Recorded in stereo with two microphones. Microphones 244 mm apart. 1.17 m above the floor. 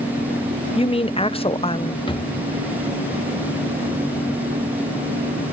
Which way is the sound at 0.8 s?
25° left (ahead or behind).